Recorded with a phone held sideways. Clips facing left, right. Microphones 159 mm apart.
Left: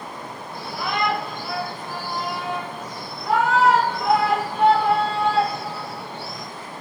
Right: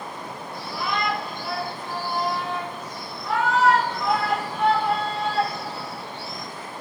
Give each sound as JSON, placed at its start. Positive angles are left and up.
{"t": 0.5, "sound": "a shout", "side_deg": 50, "distance_m": 7.5}